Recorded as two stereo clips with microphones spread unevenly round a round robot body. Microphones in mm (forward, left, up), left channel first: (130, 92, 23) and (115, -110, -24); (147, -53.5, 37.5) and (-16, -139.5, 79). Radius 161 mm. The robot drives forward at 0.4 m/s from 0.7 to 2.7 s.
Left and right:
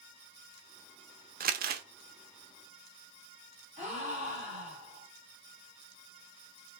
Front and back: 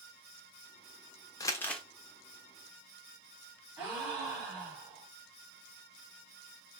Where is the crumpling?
50° right, 0.5 m; by 1.8 s 85° right, 0.5 m.